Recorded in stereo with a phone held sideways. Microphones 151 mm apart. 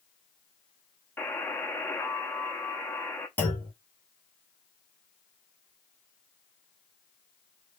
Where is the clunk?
15° left (ahead or behind), 1.7 m.